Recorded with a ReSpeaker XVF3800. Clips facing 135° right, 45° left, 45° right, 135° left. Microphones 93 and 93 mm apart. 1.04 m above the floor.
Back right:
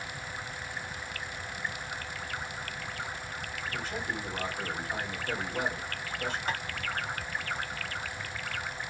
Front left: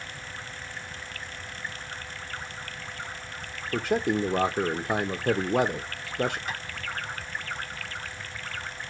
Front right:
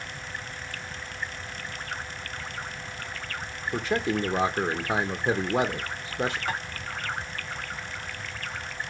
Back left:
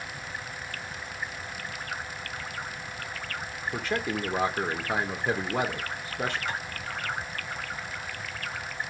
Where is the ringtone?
No ringtone in this recording.